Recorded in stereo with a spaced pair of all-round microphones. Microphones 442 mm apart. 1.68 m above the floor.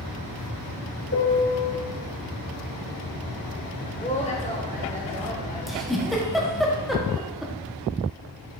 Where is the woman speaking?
15° left (ahead or behind), 1.8 m.